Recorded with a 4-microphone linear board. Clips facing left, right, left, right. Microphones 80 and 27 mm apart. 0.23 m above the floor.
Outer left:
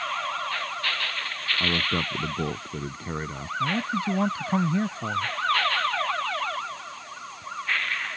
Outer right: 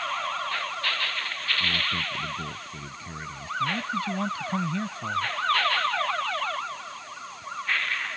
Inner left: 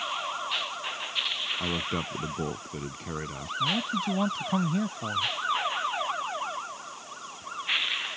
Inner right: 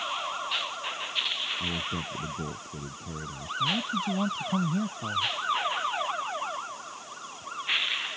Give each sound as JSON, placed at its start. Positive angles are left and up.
{"t": 1.6, "sound": "a man speaking", "side_deg": 50}
{"t": 3.6, "sound": "a man speaking", "side_deg": 25}